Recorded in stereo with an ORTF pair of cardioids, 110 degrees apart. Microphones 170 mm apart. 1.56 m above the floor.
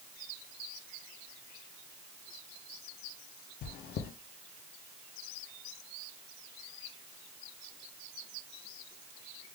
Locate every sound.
3.6 s chewing: 70° left, 0.7 m